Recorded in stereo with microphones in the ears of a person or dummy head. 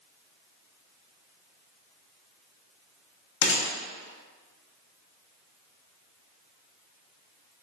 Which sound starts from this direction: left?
A gunshot, at 3.4 s.